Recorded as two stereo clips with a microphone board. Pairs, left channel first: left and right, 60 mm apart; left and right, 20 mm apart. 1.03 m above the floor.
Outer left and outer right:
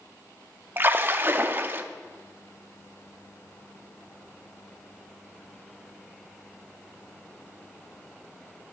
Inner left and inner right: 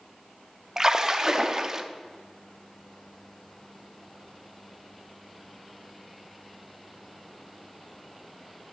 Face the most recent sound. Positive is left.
turn(degrees=-35)  # may be behind; listen again after turning